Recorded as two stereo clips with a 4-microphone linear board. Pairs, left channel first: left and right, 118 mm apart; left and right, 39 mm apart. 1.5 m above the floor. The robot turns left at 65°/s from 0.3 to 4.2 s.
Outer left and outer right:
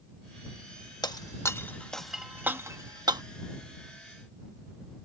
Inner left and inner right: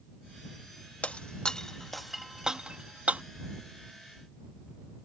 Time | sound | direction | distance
1.0 | breaking glass | 35° left (ahead or behind) | ?